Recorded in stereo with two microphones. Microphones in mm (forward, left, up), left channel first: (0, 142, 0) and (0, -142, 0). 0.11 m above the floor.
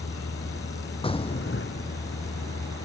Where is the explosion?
20° left (ahead or behind).